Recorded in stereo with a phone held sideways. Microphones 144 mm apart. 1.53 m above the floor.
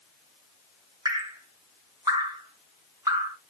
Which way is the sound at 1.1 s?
25° right (ahead or behind).